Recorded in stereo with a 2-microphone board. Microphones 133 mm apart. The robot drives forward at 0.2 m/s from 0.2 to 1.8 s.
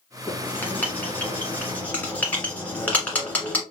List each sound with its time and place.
0.3 s writing: 15° left (ahead or behind), 1.2 m; by 3.6 s 10° left (ahead or behind), 1.5 m